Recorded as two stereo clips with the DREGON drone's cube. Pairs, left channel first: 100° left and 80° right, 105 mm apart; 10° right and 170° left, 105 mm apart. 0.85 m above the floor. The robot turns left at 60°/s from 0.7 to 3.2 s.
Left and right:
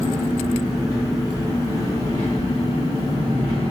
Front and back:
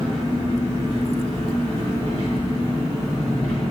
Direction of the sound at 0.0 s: 140° right.